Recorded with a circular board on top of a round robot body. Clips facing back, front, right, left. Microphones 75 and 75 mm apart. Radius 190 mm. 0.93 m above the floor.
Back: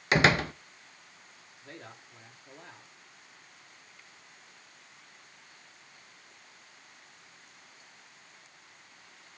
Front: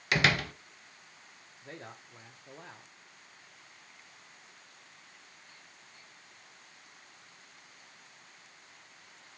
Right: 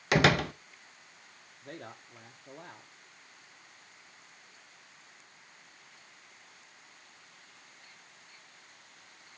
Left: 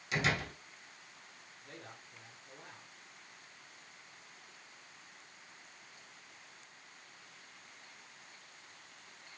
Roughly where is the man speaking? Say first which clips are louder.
Front 1 dB, right 7 dB; ahead right.